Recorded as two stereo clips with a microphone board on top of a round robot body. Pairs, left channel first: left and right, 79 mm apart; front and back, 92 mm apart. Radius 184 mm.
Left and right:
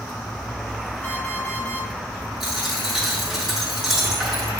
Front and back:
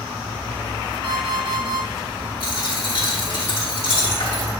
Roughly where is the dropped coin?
Ahead.